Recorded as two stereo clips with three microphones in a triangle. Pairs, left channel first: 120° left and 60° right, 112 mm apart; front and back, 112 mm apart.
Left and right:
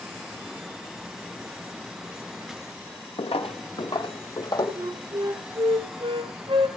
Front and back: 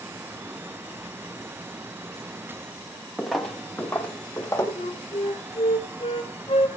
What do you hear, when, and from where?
3.2 s footsteps: 90° left, 1.3 m; by 4.7 s 70° left, 2.0 m
4.8 s a flute: 30° right, 1.2 m